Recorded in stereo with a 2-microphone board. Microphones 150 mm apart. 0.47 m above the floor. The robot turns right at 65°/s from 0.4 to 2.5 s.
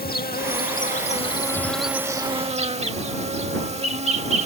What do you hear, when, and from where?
0.0 s an insect: 90° left; by 4.5 s 135° right